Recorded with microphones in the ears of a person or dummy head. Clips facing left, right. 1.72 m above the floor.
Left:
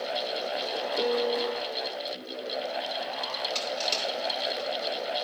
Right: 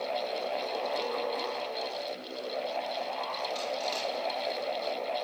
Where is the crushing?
35° left (ahead or behind), 7.5 m.